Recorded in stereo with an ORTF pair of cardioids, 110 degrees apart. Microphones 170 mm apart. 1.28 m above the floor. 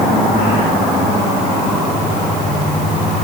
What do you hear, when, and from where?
Only background noise.